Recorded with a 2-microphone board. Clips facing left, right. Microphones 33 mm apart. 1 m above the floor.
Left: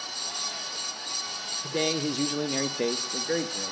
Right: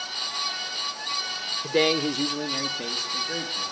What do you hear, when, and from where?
1.6 s a man speaking: 40° right (ahead or behind), 0.6 m; by 3.7 s 50° left (ahead or behind), 1.3 m